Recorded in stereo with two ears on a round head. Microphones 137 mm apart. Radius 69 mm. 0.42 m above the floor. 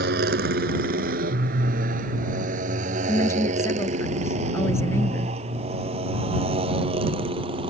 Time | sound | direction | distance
0.0 | a motorcycle | 80° right | ?
3.1 | a woman speaking | 20° left (ahead or behind) | ?